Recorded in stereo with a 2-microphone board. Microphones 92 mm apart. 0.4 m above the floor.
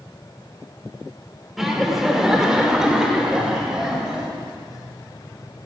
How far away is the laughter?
About 0.8 m.